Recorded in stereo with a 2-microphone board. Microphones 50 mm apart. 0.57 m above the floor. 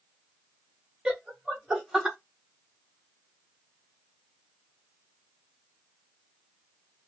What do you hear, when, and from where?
1.1 s laughter: 15° right (ahead or behind), 1.0 m; by 2.2 s 5° right (ahead or behind), 2 m